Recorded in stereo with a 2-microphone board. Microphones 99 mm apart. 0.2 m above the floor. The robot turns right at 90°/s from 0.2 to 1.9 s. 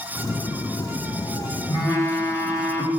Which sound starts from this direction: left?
A phone buzzing, at 1.7 s.